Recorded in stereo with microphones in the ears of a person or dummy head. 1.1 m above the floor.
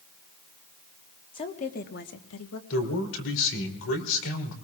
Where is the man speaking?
70° left (ahead or behind), 3 m.